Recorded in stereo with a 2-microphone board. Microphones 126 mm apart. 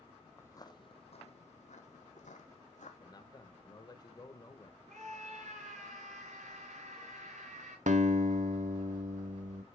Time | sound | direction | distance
0.4 | footsteps | 20° left (ahead or behind) | 0.6 m
3.0 | a man speaking | 35° left (ahead or behind) | 1.0 m
4.9 | a scream | 75° right (ahead or behind) | 4.5 m
7.9 | a guitar | 75° right (ahead or behind) | 0.6 m